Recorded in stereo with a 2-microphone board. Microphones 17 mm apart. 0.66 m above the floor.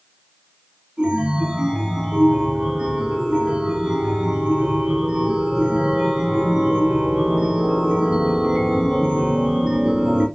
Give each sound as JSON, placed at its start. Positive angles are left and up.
{"t": 1.0, "sound": "a chime", "side_deg": -75, "distance_m": 2.5}